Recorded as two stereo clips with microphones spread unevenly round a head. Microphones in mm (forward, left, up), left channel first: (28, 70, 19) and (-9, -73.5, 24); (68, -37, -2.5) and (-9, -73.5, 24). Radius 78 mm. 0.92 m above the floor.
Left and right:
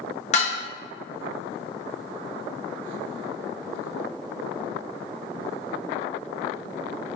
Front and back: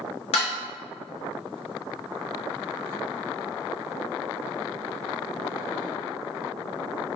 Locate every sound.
0.3 s dishes clattering: 30° left, 0.8 m